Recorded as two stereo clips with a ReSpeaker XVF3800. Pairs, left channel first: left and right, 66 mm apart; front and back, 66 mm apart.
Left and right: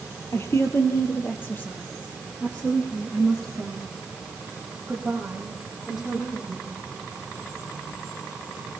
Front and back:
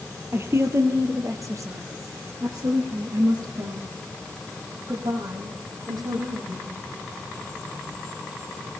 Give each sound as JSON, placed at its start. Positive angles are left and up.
{"t": 0.3, "sound": "a woman speaking", "azimuth_deg": 135, "distance_m": 3.0}